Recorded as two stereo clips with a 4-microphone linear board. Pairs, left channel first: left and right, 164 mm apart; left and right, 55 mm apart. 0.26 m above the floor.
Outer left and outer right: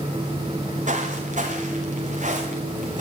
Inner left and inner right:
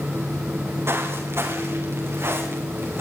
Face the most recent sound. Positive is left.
turn(degrees=-50)  # may be behind; listen again after turning